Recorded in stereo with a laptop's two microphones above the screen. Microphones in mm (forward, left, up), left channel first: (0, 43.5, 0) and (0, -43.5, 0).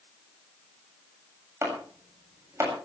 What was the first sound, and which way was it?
Chopping, 35° right (ahead or behind).